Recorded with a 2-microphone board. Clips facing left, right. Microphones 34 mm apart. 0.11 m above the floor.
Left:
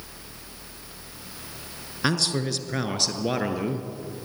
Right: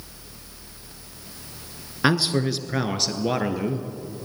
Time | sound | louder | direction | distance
2.0 | a man speaking | right 4 dB | 15° right (ahead or behind) | 1.4 m